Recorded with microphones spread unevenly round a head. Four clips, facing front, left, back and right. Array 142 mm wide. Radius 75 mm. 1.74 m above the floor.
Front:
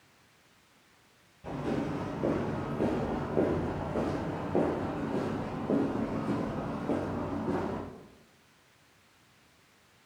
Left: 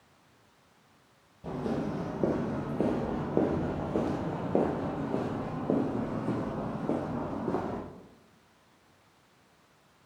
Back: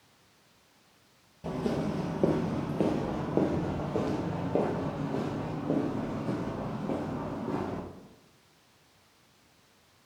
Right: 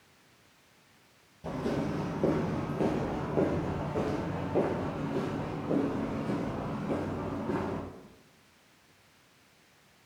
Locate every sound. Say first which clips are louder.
1.4 s footsteps: even, back 2 dB; 150° left, 2 m; by 7.8 s 85° left, 4.5 m